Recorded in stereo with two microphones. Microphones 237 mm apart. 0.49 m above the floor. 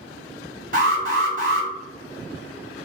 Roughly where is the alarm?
Right.